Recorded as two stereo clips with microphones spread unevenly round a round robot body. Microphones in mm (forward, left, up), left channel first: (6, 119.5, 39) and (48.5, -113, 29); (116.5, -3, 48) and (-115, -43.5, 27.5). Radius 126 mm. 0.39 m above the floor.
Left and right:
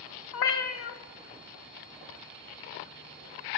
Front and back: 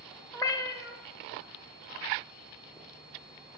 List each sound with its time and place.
0.3 s a cat meowing: 90° left, 0.5 m